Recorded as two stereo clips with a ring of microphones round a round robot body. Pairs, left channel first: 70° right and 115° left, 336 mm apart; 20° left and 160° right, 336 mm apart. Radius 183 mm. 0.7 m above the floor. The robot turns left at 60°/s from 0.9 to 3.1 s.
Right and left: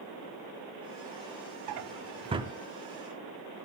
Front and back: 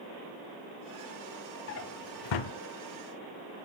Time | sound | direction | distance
1.7 | a drawer | 75° left | 0.7 m